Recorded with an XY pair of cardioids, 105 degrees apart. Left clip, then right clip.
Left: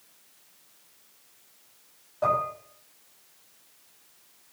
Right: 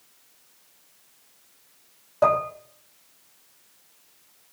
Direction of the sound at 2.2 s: 65° right.